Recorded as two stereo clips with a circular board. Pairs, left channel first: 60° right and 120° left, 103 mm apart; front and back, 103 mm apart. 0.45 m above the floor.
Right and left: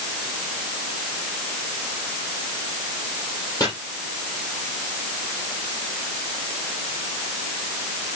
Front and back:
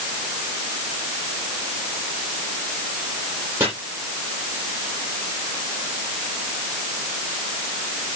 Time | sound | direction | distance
3.6 | chopping | 110° right | 6.5 m